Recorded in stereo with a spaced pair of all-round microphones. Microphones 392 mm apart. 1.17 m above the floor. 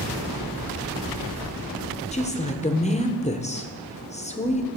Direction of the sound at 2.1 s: 15° left (ahead or behind).